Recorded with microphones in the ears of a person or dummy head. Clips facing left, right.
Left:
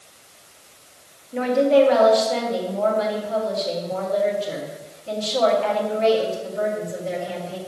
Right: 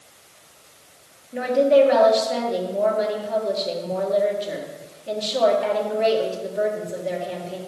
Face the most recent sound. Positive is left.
turn(degrees=-20)  # may be behind; listen again after turning